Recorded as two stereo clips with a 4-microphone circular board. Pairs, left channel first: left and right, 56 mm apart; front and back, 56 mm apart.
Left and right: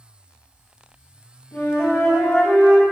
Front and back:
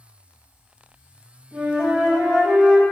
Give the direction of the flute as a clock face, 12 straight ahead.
8 o'clock.